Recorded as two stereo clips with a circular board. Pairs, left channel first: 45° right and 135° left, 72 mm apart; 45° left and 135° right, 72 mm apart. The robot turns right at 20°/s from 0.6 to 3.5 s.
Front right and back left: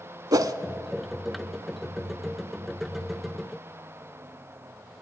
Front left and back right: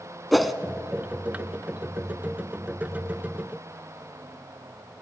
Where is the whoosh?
135° left, 0.7 m.